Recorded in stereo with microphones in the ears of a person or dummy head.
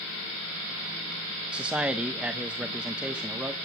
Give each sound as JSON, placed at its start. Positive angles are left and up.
{"t": 1.5, "sound": "a man speaking", "side_deg": -10, "distance_m": 0.8}